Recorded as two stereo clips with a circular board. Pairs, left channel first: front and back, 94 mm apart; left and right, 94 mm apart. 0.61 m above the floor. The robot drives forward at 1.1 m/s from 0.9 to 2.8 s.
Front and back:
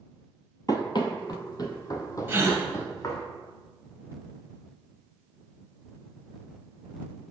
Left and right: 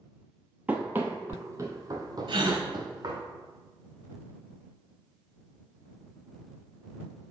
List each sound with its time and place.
0.7 s running footsteps: 20° right, 0.8 m; by 3.2 s 45° right, 1.9 m
2.3 s a gasp: 115° right, 1.5 m; by 2.6 s 125° right, 1.7 m